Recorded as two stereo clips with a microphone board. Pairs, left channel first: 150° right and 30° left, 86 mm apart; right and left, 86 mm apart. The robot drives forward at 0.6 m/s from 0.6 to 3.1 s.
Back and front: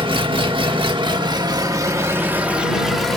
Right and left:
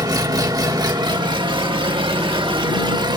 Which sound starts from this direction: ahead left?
An engine running, at 0.0 s.